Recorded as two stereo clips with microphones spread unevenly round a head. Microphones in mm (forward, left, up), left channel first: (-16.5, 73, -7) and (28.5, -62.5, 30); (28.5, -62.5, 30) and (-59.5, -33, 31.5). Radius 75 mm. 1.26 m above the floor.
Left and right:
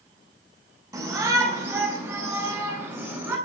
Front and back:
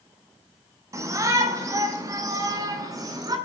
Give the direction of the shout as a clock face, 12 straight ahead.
5 o'clock.